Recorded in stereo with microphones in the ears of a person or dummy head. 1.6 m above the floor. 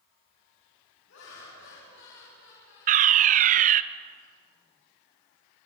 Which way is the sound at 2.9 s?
35° right (ahead or behind).